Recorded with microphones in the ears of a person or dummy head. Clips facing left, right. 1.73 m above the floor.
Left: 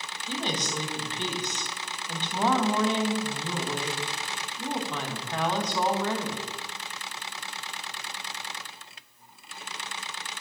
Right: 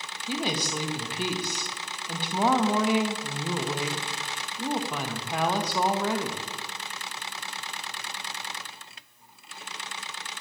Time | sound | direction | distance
0.3 | a woman speaking | 10° right (ahead or behind) | 0.6 m